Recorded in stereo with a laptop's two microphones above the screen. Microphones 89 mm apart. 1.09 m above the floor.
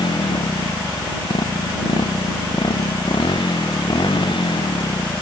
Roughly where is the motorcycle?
Left.